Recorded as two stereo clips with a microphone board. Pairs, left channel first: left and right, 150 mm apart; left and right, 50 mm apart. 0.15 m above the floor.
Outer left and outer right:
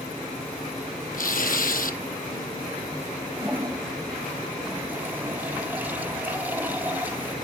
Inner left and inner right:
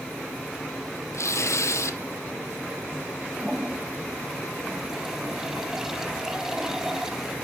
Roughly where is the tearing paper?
Left.